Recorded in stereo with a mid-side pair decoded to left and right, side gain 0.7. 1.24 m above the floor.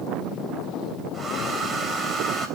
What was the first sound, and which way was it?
A hair dryer, 20° right.